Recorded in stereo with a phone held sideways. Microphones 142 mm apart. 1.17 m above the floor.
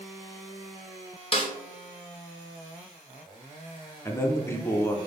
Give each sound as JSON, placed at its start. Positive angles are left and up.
{"t": 1.3, "sound": "a snare drum", "side_deg": 40, "distance_m": 0.6}
{"t": 4.0, "sound": "a man speaking", "side_deg": 20, "distance_m": 0.5}